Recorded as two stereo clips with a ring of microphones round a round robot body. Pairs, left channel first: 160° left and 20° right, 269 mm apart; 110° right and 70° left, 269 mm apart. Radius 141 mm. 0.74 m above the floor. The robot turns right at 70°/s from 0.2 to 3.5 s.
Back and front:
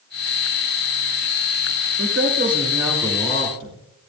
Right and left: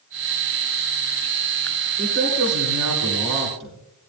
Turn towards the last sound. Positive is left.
turn(degrees=110)